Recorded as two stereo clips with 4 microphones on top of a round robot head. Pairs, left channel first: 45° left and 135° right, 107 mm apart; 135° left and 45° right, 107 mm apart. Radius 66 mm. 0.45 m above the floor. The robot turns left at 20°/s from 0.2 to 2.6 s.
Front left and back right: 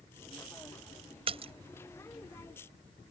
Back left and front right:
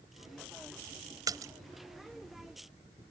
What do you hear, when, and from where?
1.3 s a splash: 105° right; by 1.5 s 110° right